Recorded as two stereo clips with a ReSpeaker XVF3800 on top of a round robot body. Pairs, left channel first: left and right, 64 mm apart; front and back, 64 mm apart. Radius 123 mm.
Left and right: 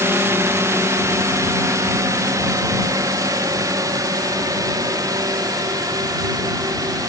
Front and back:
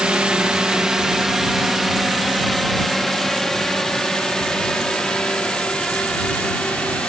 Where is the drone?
110° right; by 7.1 s 70° right.